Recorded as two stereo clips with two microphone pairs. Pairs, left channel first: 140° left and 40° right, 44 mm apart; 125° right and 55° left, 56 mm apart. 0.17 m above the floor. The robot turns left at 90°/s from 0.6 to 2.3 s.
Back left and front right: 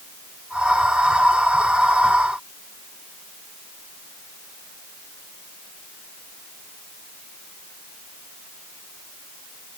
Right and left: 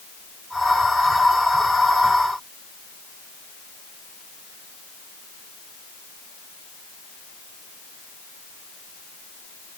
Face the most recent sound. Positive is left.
No sound to turn to.